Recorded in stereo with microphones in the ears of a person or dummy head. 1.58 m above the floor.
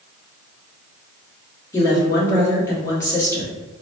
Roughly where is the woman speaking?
Centre.